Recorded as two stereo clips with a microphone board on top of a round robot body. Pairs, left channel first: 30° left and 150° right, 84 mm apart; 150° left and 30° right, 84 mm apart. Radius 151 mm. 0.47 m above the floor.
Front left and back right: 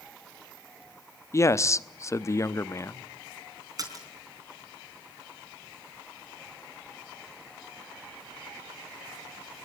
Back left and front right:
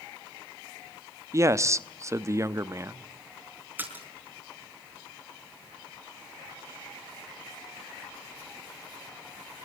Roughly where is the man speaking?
Ahead.